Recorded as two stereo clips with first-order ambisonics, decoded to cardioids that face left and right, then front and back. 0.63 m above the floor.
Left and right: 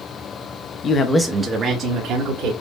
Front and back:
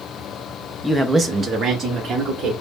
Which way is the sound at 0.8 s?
85° left.